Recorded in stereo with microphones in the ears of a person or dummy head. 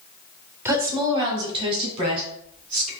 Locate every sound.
0.7 s a woman speaking: 15° right (ahead or behind), 0.7 m; by 2.9 s 35° right (ahead or behind), 3 m